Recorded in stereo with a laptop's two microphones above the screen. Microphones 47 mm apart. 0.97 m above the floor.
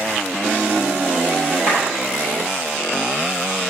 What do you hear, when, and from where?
1.7 s a clap: 45° right (ahead or behind), 4.5 m